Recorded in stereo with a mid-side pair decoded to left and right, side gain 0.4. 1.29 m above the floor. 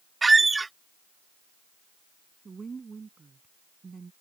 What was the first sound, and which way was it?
A squeak, 25° right.